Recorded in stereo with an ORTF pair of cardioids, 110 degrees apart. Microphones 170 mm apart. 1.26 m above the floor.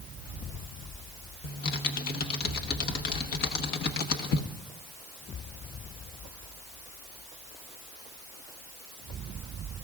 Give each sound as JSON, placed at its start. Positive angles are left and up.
{"t": 1.4, "sound": "typing on a keyboard", "azimuth_deg": 65, "distance_m": 1.2}